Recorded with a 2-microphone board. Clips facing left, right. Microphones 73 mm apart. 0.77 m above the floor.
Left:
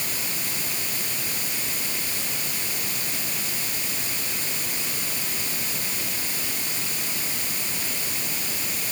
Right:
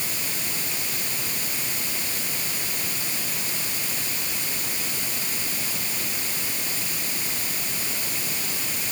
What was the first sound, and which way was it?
Only background noise.